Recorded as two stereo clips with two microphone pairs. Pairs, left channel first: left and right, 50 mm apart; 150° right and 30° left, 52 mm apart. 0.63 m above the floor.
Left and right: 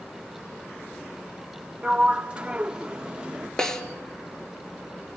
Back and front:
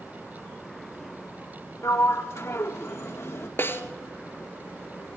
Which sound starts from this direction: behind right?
A sliding door, at 1.8 s.